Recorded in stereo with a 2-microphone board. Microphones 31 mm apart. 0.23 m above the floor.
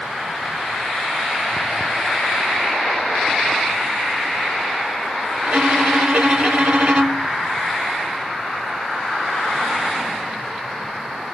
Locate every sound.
5.5 s a violin: 45° right (ahead or behind), 0.7 m